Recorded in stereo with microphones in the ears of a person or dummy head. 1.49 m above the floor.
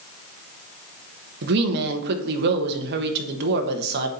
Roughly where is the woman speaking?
Right.